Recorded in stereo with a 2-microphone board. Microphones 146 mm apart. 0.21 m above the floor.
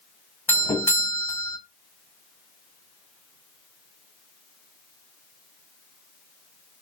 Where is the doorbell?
20° left (ahead or behind), 1.5 m.